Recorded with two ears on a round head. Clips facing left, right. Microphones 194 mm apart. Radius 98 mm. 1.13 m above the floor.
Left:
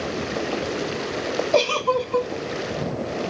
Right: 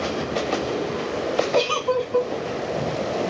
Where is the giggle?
65° left (ahead or behind), 1.9 m.